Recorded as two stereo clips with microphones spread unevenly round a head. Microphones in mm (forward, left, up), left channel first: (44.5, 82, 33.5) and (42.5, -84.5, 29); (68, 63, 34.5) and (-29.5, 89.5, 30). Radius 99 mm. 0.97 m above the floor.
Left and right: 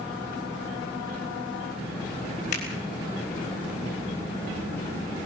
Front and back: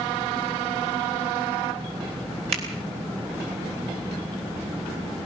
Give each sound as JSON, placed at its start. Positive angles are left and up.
{"t": 2.5, "sound": "a finger snap", "azimuth_deg": 145, "distance_m": 6.0}